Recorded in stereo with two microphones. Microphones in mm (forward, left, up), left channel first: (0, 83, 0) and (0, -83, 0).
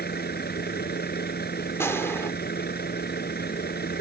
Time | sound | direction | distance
0.0 | a vehicle | 70° left (ahead or behind) | ?
1.8 | a gunshot | 15° left (ahead or behind) | ?